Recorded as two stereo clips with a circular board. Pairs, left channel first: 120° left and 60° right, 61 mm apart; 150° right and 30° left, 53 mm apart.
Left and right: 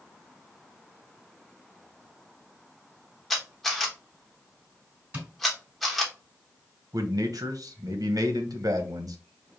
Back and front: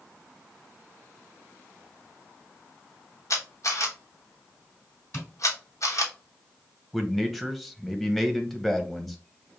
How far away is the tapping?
About 3 m.